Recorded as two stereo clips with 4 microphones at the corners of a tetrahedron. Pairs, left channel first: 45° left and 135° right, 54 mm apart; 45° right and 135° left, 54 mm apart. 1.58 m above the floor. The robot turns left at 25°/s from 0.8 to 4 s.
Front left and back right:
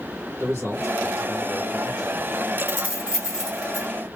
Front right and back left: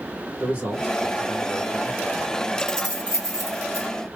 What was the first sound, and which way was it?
A man speaking, 155° right.